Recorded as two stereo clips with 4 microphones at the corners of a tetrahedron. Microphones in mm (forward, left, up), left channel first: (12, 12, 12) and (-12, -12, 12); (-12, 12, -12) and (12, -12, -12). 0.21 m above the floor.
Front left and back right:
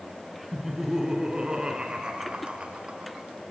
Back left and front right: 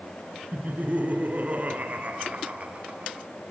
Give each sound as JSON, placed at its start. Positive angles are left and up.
{"t": 0.5, "sound": "laughter", "azimuth_deg": -60, "distance_m": 2.5}